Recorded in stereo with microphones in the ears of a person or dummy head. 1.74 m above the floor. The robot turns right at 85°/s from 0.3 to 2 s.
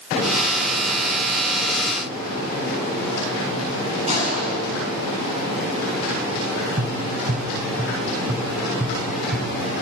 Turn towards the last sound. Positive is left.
turn(degrees=-25)  # may be behind; listen again after turning